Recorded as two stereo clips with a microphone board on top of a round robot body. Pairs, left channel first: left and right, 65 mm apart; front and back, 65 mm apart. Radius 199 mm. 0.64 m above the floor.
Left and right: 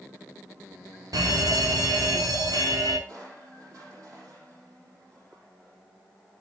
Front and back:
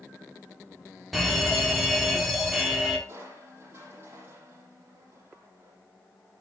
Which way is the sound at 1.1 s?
90° right.